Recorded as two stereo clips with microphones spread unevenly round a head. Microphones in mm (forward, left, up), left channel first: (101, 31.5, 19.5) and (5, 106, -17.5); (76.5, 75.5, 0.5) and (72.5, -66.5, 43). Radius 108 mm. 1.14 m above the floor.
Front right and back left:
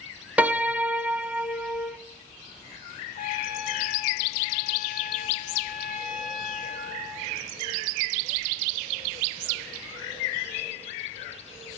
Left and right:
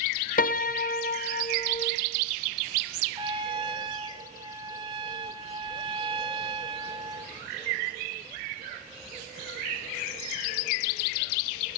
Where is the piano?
55° left, 1.1 m.